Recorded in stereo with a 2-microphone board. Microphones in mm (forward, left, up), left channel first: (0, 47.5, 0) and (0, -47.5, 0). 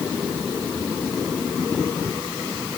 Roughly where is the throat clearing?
No throat clearing in this recording.